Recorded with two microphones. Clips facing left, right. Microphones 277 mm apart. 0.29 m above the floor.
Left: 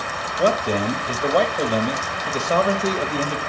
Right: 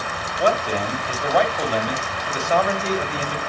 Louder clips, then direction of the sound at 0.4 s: Left 2 dB; 40° left (ahead or behind).